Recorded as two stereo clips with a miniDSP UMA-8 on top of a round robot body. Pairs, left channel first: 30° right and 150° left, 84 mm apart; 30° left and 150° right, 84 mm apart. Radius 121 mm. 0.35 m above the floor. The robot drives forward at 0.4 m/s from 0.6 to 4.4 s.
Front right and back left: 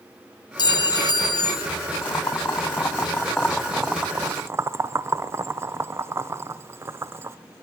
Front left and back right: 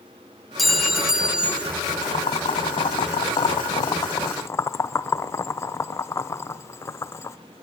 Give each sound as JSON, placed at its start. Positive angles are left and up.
{"t": 0.6, "sound": "a clink", "azimuth_deg": -60, "distance_m": 1.8}
{"t": 2.0, "sound": "boiling", "azimuth_deg": 25, "distance_m": 1.1}